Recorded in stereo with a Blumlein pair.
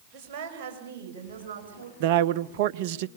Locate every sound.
0.1 s a woman speaking: 40° right, 5 m; by 1.9 s 65° right, 6 m
2.0 s a man speaking: 50° right, 0.6 m